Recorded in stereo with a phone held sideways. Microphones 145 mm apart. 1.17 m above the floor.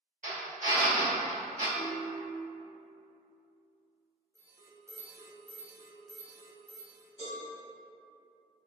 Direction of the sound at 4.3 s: 20° right (ahead or behind).